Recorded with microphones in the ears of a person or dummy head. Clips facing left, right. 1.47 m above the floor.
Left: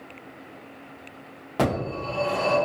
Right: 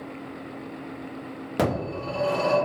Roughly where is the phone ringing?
Right.